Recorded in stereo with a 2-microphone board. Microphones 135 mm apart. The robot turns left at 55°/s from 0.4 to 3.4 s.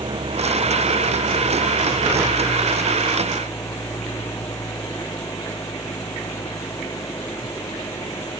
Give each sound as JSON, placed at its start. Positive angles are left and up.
{"t": 0.0, "sound": "an engine running", "azimuth_deg": -40}